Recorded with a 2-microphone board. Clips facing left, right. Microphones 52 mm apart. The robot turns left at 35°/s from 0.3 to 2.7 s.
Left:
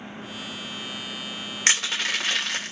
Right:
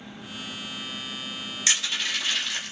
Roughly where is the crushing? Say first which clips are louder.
Left 3 dB; left.